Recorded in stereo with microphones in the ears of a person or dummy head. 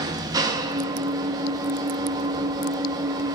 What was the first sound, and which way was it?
An engine running, 20° right (ahead or behind).